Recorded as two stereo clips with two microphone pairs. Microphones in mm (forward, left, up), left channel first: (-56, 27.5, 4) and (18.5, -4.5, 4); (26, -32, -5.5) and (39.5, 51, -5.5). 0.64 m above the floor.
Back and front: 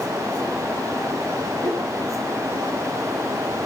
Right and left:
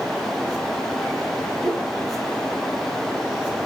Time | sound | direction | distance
1.6 | a whoosh | 5° right | 4 m